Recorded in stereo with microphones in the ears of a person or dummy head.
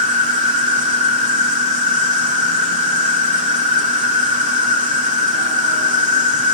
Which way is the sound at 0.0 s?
35° right (ahead or behind).